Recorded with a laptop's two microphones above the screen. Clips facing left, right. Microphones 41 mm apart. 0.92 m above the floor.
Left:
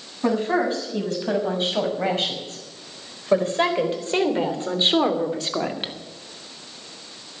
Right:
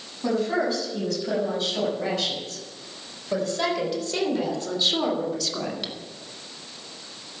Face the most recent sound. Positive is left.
turn(degrees=40)  # may be behind; listen again after turning